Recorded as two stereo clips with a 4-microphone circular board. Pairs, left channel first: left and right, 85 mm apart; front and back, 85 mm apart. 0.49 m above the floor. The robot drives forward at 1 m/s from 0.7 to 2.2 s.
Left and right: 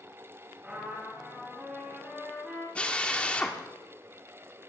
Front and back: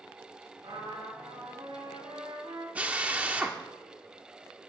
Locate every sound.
0.6 s a trumpet: 165° right, 3 m; by 2.6 s 170° right, 4.5 m
2.8 s a drill: 140° left, 1.0 m